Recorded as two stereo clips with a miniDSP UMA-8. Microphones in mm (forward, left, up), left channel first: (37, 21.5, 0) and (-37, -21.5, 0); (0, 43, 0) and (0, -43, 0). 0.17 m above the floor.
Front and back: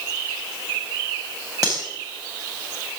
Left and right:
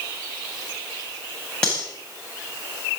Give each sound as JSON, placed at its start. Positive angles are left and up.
{"t": 1.6, "sound": "cutlery clinking", "azimuth_deg": 170, "distance_m": 9.0}